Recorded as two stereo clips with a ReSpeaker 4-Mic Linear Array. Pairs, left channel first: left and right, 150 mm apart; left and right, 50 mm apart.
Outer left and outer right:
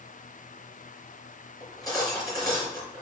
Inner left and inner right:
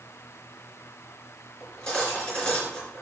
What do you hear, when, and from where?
1.6 s cutlery clinking: 25° left (ahead or behind), 3.5 m